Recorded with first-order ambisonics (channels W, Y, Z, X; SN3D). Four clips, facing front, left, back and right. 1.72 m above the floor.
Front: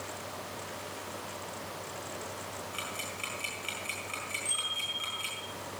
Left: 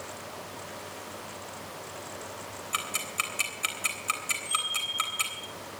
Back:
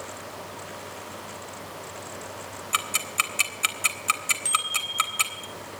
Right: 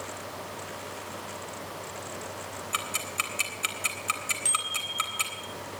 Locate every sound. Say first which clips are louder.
2.7 s ticking: even, back 15 dB; straight behind, 3 m
4.5 s a bicycle bell: left 1 dB, back 4 dB; 125° right, 8.5 m